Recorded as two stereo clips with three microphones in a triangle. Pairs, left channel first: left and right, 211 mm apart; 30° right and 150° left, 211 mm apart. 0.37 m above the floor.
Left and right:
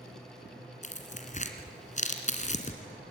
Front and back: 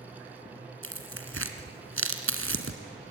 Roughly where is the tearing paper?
Behind left.